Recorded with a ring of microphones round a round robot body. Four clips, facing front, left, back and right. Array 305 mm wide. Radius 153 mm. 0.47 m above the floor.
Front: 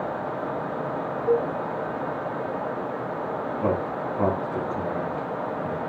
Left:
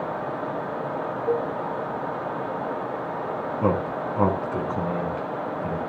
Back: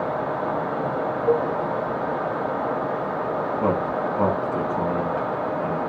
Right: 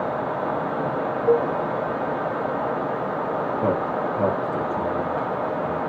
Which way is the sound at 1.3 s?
135° right.